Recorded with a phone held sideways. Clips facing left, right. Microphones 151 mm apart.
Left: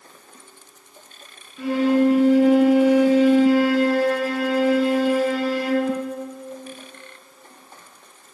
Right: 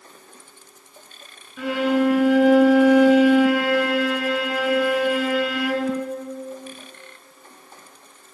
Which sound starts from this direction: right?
A violin, at 1.6 s.